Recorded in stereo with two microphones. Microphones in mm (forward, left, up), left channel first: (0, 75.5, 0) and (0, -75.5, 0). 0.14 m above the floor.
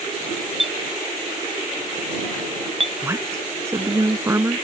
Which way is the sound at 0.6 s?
40° right (ahead or behind).